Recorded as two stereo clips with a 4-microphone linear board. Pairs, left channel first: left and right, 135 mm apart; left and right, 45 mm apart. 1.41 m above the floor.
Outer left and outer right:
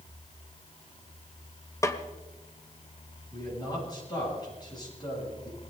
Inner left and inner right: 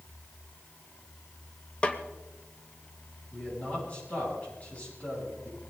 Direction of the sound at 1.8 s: 20° left (ahead or behind).